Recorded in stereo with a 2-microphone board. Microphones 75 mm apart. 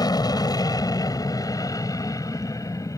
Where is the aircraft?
55° left (ahead or behind); by 3.0 s 40° left (ahead or behind).